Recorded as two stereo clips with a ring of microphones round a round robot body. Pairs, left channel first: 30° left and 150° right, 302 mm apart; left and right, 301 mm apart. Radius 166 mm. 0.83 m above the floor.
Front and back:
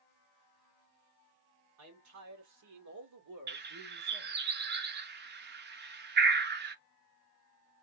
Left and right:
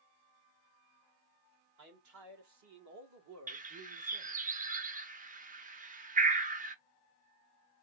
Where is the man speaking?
115° right, 3 m; by 4.4 s 135° right, 1.5 m.